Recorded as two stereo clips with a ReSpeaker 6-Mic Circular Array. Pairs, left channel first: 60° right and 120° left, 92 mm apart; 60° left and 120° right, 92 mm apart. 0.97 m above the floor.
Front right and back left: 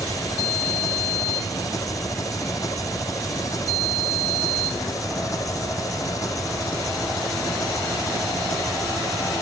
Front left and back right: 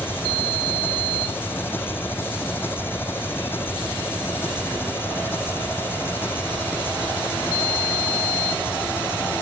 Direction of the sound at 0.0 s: 10° right.